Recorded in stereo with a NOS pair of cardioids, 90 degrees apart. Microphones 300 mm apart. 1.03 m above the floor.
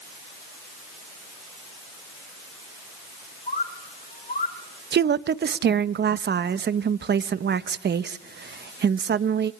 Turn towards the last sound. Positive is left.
turn(degrees=-40)